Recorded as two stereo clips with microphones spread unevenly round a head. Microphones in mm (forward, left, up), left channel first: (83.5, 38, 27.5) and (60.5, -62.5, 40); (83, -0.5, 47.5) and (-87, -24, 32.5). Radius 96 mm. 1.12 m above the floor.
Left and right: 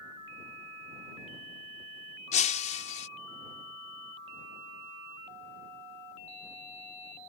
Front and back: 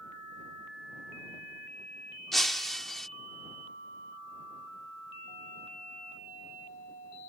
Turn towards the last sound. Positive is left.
turn(degrees=95)